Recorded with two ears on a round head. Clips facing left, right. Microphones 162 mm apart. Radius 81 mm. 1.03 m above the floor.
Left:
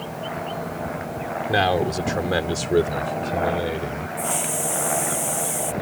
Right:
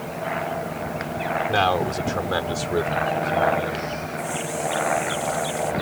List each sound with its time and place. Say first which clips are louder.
1.5 s a man speaking: left 3 dB; 15° left (ahead or behind); by 4.1 s 45° left (ahead or behind)
4.2 s a hiss: even; 75° left (ahead or behind)